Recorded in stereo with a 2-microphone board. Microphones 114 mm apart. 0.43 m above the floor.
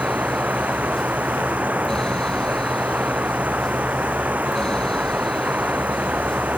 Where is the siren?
No siren in this recording.